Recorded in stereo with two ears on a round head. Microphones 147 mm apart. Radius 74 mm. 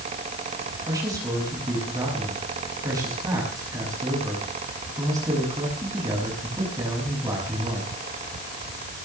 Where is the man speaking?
25° right (ahead or behind), 6.5 m.